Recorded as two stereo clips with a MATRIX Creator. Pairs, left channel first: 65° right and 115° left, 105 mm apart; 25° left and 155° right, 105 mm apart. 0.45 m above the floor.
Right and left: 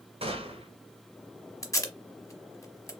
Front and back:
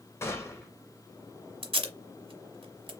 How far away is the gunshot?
About 1.2 m.